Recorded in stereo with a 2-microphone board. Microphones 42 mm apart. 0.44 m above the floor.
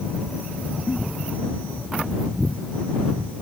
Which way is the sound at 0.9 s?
85° left.